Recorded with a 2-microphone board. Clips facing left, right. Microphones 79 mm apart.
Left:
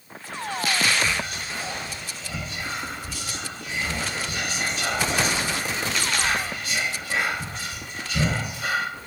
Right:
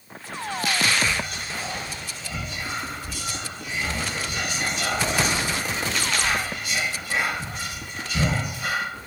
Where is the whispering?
5° right (ahead or behind), 1.1 m.